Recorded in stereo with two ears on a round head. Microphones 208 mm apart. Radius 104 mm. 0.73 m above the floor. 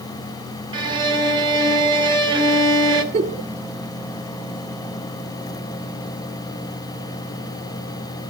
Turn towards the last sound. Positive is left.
turn(degrees=-30)  # may be behind; listen again after turning